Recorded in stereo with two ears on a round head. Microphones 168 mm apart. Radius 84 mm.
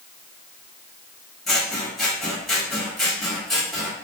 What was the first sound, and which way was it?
Scissors, centre (ahead or behind).